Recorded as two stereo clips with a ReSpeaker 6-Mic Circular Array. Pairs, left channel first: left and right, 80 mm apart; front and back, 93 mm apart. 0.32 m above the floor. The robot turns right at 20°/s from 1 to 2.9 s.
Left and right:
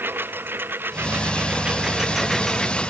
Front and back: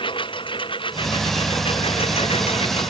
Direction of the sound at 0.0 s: 25° right.